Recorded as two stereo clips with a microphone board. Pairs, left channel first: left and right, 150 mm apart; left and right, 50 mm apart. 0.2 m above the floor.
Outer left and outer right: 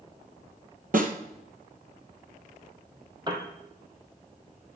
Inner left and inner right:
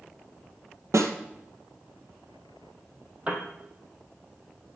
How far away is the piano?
About 2.5 m.